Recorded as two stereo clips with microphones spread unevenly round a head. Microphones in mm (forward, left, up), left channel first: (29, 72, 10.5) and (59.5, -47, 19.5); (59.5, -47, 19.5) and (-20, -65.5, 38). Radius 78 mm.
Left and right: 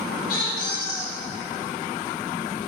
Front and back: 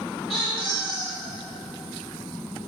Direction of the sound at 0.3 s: 110° left.